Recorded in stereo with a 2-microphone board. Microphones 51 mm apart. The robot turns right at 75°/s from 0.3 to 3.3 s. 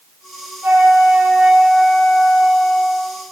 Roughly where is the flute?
Right.